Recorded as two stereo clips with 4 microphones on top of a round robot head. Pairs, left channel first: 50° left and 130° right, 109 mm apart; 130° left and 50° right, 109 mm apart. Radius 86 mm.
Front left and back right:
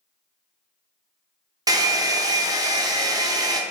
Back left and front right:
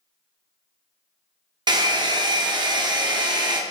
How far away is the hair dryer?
About 0.6 m.